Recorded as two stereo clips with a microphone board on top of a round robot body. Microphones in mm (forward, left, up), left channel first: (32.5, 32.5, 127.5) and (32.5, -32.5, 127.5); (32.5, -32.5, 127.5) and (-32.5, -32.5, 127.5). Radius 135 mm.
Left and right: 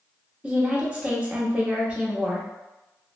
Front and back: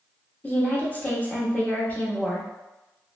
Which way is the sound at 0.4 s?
35° right.